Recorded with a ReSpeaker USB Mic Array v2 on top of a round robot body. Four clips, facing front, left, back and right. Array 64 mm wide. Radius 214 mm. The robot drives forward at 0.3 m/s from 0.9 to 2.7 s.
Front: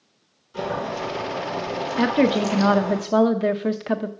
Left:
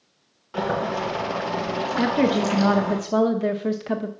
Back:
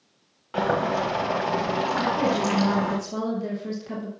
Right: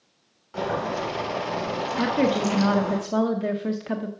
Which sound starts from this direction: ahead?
A woman speaking, at 2.0 s.